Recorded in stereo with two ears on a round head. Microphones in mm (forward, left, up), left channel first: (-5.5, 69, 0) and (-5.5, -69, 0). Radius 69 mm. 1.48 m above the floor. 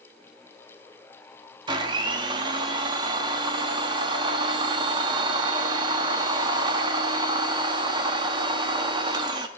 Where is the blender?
30° right (ahead or behind), 1.0 m.